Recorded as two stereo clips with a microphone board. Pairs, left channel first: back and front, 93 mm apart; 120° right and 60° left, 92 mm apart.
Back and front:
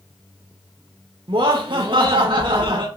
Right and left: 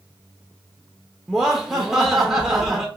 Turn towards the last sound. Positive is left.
turn(degrees=-25)